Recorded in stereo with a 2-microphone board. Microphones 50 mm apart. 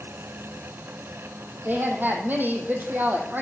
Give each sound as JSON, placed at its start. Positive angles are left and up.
{"t": 1.6, "sound": "a woman speaking", "side_deg": -45, "distance_m": 3.5}